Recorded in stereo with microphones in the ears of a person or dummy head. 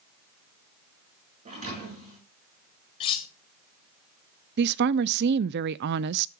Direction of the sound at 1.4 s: 40° right (ahead or behind).